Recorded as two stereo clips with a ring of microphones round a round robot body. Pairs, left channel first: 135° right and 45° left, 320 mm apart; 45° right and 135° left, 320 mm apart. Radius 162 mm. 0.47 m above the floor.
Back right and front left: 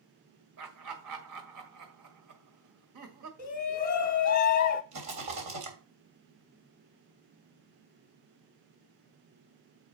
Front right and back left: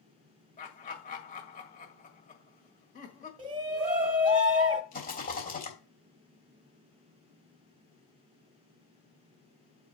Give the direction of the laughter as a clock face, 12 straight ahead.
11 o'clock.